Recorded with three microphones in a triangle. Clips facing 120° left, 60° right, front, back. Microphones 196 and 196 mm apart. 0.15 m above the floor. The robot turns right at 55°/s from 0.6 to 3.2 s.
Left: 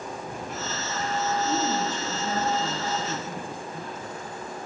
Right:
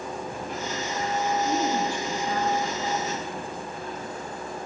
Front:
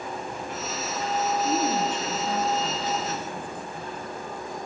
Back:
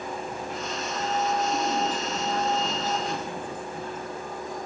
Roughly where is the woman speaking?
Ahead left.